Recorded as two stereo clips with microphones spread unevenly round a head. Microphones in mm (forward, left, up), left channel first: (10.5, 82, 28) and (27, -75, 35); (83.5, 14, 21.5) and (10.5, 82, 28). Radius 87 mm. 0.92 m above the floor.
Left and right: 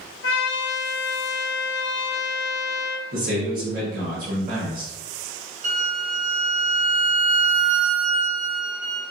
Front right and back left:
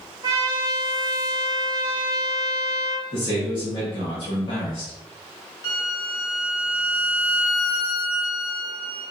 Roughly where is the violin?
Right.